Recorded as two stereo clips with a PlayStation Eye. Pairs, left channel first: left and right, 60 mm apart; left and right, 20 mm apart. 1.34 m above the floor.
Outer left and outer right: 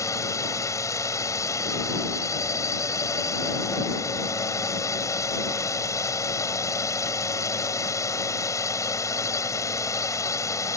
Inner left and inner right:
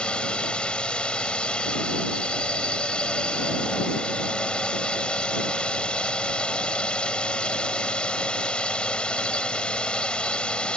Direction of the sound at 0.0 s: 65° left (ahead or behind).